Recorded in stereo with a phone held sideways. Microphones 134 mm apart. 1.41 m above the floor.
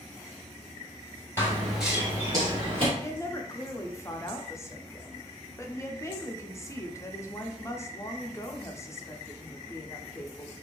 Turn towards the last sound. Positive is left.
turn(degrees=20)  # may be behind; listen again after turning